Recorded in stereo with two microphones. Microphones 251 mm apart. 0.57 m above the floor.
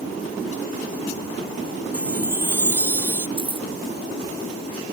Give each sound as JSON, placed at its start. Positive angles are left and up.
{"t": 1.9, "sound": "a chime", "side_deg": -10}
{"t": 3.4, "sound": "keys jangling", "side_deg": -20}